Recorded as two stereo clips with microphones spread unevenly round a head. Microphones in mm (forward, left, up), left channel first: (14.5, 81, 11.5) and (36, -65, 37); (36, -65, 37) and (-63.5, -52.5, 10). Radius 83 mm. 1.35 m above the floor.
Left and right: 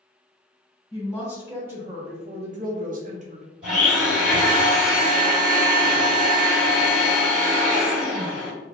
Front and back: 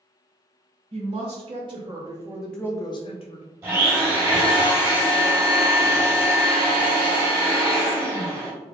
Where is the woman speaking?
175° right, 1.5 m; by 3.5 s 35° right, 0.9 m.